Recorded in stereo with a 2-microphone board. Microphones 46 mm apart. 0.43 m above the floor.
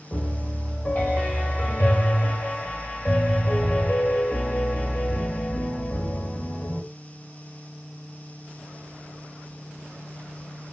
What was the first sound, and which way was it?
A piano, 40° left (ahead or behind).